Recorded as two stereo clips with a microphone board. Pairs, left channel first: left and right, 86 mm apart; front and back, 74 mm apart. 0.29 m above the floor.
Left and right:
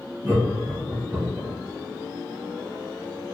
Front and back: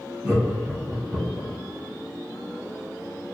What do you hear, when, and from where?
0.2 s laughter: 145° right, 1.5 m